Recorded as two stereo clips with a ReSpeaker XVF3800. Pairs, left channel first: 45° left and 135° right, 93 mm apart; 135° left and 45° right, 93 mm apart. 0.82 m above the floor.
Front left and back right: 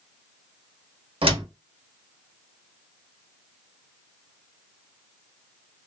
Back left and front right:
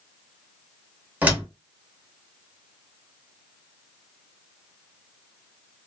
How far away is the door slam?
About 0.9 m.